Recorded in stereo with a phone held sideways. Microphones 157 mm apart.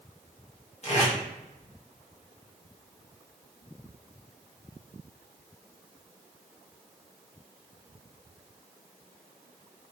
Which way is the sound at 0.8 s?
45° left (ahead or behind).